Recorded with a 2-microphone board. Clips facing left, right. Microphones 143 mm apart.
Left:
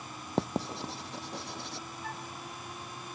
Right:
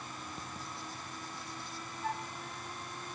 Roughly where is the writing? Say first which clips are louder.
Left 12 dB; left.